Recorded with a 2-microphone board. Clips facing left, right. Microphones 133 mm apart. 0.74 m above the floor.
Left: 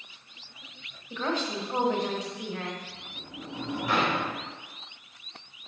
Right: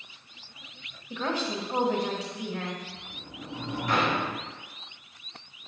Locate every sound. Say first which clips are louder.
1.1 s a woman speaking: even; 10° right (ahead or behind), 1.1 m
2.9 s a sliding door: even; 5° left (ahead or behind), 1.8 m